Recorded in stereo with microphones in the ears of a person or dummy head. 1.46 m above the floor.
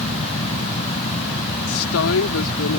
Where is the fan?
30° left (ahead or behind).